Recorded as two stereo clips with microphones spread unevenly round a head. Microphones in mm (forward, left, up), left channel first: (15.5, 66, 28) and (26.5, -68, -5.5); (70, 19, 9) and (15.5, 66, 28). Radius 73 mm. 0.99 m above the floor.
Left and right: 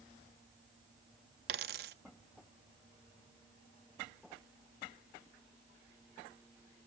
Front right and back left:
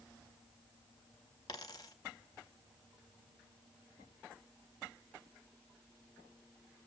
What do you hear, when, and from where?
1.5 s a dropped coin: 110° right, 0.6 m